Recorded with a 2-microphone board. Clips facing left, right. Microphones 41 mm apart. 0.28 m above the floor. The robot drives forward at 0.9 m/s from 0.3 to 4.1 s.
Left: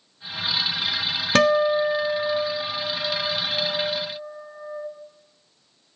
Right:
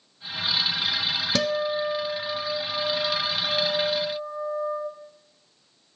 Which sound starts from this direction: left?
A guitar, at 1.4 s.